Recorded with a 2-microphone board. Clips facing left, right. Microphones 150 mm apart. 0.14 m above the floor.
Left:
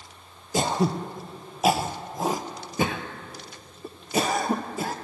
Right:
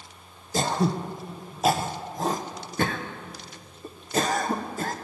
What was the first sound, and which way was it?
Throat clearing, 10° left (ahead or behind).